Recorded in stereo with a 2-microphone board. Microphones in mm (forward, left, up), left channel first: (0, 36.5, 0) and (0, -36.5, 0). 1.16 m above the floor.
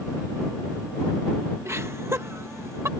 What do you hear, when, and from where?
1.6 s laughter: 35° right (ahead or behind)